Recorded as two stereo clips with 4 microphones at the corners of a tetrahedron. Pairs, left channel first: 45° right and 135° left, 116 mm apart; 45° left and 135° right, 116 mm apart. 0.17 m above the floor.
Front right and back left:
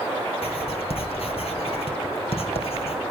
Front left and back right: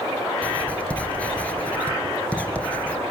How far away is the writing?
About 2.5 m.